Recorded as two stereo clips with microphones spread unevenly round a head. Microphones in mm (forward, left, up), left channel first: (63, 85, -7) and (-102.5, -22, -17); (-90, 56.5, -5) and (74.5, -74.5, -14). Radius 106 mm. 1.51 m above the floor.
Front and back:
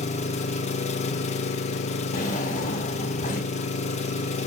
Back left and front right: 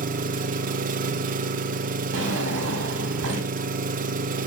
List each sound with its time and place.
0.0 s an engine running: 5° right, 0.8 m
2.1 s a drawer: 20° right, 3 m